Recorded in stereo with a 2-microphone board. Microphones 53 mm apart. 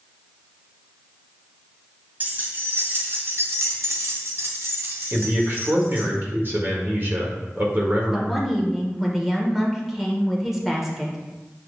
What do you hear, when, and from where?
2.2 s keys jangling: 35° right (ahead or behind), 2 m
5.1 s a man speaking: 45° right (ahead or behind), 1.8 m
8.1 s a woman speaking: 5° right (ahead or behind), 1.5 m